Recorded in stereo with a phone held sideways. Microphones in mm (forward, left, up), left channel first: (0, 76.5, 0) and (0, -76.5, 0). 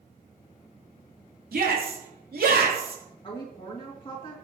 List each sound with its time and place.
1.5 s a shout: 80° right, 3 m
3.2 s a woman speaking: 35° left (ahead or behind), 2.5 m